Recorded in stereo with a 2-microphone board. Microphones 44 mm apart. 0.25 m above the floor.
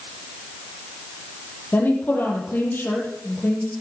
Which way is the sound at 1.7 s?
55° left (ahead or behind).